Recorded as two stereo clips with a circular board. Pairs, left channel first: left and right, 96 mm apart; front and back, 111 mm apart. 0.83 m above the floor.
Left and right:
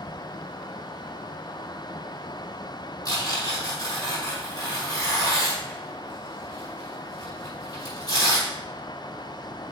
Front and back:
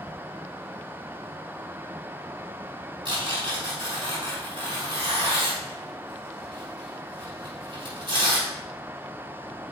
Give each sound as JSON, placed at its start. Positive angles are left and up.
{"t": 3.0, "sound": "tearing paper", "azimuth_deg": 135, "distance_m": 5.0}